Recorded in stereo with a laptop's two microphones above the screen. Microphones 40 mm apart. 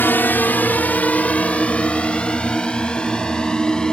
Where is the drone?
60° left (ahead or behind); by 3.9 s 20° left (ahead or behind).